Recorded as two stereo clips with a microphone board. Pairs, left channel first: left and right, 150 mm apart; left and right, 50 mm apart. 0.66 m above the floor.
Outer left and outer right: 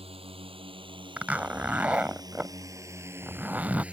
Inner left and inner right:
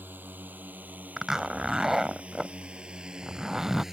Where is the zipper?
10° right (ahead or behind).